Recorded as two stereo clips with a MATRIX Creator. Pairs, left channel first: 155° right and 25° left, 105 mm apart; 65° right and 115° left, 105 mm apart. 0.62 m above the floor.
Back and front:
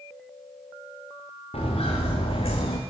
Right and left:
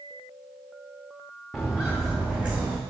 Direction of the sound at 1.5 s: 160° right.